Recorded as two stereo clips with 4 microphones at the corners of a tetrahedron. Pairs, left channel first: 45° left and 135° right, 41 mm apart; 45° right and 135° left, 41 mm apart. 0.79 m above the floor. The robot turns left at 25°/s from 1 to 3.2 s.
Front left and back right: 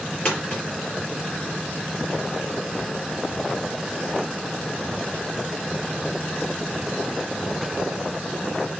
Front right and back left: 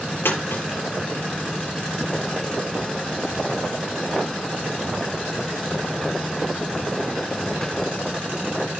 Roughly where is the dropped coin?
Ahead.